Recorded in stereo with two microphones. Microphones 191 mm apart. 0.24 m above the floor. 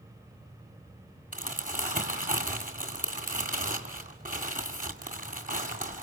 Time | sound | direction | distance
1.3 | crumpling | 45° right (ahead or behind) | 2 m